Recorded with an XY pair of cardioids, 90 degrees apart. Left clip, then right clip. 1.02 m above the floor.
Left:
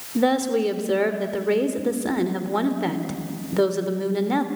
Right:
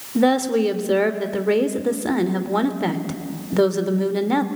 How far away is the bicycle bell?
No bicycle bell in this recording.